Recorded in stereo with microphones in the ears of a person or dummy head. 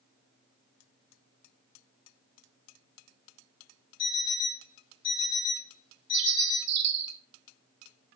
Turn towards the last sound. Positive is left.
turn(degrees=-60)  # may be behind; listen again after turning